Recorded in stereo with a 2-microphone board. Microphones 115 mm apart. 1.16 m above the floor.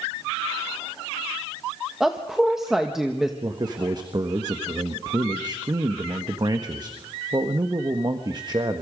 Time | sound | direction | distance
2.0 | a woman speaking | 5° right (ahead or behind) | 1.4 m
3.4 | a man speaking | 35° right (ahead or behind) | 1.4 m